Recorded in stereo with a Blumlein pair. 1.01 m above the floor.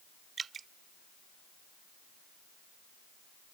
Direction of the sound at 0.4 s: 20° right.